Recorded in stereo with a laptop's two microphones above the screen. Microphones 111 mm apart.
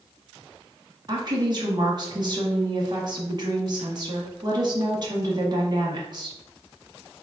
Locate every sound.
1.1 s a woman speaking: 40° right (ahead or behind), 1.2 m